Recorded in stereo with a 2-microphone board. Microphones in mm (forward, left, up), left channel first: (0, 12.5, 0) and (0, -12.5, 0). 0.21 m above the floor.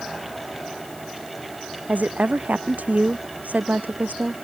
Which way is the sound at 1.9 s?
80° right.